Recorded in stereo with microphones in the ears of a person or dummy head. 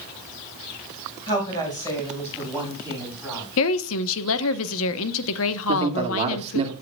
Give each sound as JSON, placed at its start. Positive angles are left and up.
{"t": 1.3, "sound": "a woman speaking", "side_deg": 25, "distance_m": 5.0}
{"t": 3.6, "sound": "a woman speaking", "side_deg": 75, "distance_m": 1.0}
{"t": 5.7, "sound": "a man speaking", "side_deg": -35, "distance_m": 2.0}